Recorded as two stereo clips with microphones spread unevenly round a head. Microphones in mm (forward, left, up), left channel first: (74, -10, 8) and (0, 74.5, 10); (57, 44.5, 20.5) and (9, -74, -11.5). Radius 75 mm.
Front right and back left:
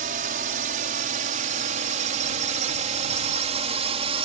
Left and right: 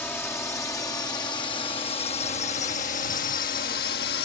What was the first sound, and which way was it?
A drone, 150° left.